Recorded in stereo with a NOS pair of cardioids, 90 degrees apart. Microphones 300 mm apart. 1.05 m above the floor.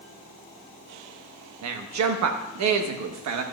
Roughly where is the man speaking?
Right.